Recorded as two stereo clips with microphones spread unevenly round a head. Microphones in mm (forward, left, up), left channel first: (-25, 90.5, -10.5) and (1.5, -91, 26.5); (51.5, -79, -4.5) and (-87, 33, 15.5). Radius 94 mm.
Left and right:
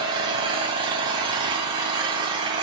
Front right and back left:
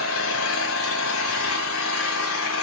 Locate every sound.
0.0 s an engine running: 20° right, 2 m